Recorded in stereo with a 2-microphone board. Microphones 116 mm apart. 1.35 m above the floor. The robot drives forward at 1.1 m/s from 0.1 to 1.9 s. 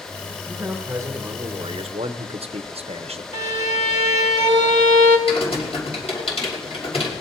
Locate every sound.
0.5 s a man speaking: 20° right (ahead or behind), 2.0 m; by 3.2 s 55° right (ahead or behind), 0.8 m
3.3 s a violin: 85° left, 2 m
5.3 s typing on a keyboard: 55° left (ahead or behind), 5 m